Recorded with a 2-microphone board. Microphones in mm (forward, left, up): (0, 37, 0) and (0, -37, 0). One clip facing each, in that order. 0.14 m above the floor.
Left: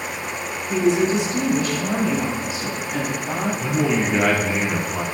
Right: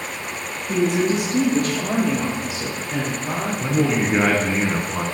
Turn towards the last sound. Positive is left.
turn(degrees=-20)  # may be behind; listen again after turning